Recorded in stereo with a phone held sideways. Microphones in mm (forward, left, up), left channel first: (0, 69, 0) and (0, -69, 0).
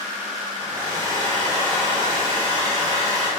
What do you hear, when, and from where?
0.6 s a hair dryer: 25° right (ahead or behind), 3.5 m